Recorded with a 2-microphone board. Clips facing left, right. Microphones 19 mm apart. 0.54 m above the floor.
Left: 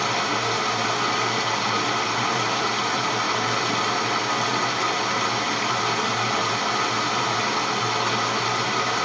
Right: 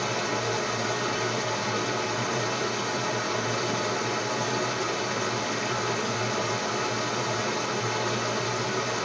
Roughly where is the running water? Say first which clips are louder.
Left 5 dB; left.